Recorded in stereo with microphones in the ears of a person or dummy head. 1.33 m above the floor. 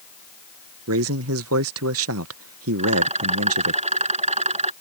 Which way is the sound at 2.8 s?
30° right (ahead or behind).